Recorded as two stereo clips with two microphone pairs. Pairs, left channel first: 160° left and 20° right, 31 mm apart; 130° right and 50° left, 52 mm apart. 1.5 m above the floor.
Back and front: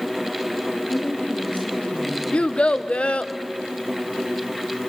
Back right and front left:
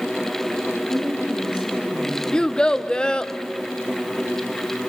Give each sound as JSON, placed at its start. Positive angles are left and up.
{"t": 0.8, "sound": "a woman speaking", "azimuth_deg": 130, "distance_m": 3.5}
{"t": 2.3, "sound": "a child speaking", "azimuth_deg": 170, "distance_m": 0.5}